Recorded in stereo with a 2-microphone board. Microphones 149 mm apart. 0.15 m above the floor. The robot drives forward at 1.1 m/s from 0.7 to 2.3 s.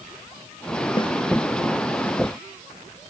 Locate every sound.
1.0 s a snare drum: 35° left (ahead or behind), 4.5 m